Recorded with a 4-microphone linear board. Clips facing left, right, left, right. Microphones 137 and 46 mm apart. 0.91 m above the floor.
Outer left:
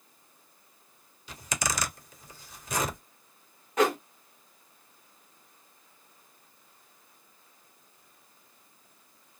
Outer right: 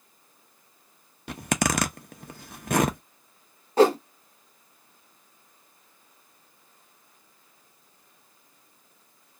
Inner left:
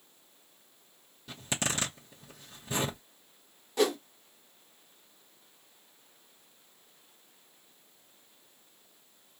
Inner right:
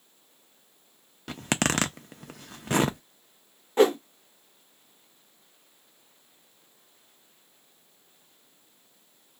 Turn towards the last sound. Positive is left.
turn(degrees=-30)  # may be behind; listen again after turning